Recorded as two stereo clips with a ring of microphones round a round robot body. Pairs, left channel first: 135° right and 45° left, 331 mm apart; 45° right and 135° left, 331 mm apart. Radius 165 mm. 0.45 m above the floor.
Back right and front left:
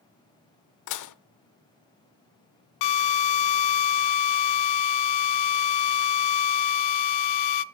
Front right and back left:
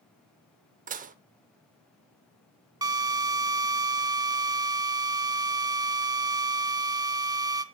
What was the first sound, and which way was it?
Dishes clattering, 160° right.